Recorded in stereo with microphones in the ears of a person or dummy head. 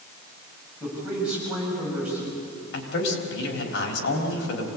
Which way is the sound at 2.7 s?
75° left (ahead or behind).